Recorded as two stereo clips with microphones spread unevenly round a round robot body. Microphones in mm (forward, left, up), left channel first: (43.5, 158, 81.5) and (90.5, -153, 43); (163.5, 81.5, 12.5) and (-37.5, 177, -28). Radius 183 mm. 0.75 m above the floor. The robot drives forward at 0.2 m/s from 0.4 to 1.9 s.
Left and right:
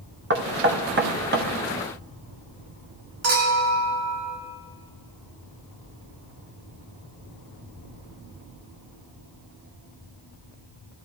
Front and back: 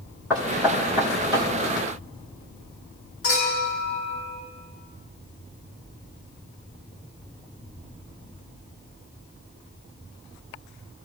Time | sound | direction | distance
0.3 | knocking | 120° right | 1.0 m
3.2 | a clink | 90° right | 7.5 m